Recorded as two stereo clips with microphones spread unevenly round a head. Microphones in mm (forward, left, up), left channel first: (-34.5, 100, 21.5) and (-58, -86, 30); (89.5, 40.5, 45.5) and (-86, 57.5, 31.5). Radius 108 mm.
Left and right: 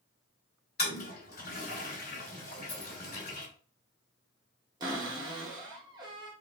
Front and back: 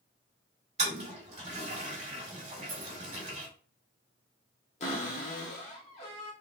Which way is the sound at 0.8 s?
120° left.